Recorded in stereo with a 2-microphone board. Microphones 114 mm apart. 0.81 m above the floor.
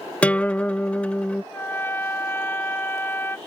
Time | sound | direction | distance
0.2 | a guitar | 10° left (ahead or behind) | ?
1.5 | a trumpet | 20° left (ahead or behind) | ?